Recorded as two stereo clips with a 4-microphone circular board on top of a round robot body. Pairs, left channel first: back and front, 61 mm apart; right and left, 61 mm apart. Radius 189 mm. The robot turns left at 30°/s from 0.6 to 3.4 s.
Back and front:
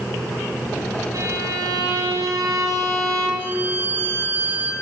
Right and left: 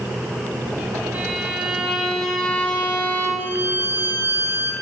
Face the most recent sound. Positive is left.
turn(degrees=40)